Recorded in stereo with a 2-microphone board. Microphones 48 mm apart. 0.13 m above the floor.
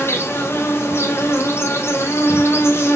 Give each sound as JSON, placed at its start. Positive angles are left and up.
{"t": 0.0, "sound": "an insect", "side_deg": 60, "distance_m": 3.0}